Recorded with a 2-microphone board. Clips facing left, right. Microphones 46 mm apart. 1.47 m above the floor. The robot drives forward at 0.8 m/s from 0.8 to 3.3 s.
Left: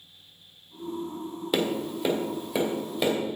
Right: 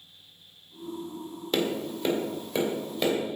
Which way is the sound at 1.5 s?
10° left (ahead or behind).